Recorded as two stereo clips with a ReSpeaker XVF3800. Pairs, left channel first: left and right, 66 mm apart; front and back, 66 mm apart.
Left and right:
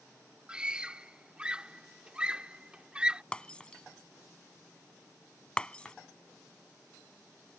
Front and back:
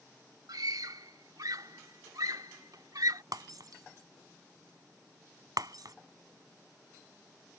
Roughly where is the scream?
Behind.